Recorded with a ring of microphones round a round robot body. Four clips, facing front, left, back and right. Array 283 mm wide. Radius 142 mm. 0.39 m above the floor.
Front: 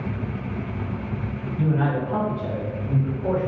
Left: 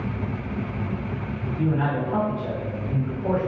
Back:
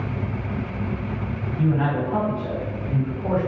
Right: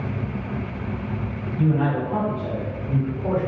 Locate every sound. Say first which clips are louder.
1.6 s a man speaking: right 3 dB, back 1 dB; 10° left, 1.6 m; by 3.5 s 120° right, 1.2 m